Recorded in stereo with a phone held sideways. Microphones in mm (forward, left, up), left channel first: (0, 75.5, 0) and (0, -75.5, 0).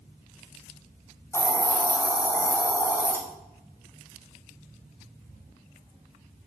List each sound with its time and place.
1.3 s a hiss: 15° left (ahead or behind), 1.6 m